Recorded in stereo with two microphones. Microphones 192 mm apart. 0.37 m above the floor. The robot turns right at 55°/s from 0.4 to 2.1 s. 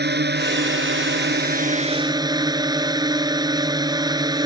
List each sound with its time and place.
0.0 s a drone: 115° right; by 4.5 s 20° right